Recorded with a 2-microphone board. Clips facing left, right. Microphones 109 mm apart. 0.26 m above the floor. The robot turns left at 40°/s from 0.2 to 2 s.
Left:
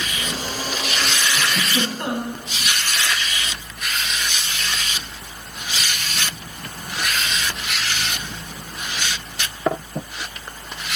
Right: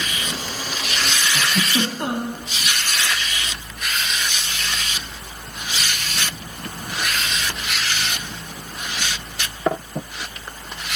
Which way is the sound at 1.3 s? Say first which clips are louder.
Right 4 dB; 35° right (ahead or behind).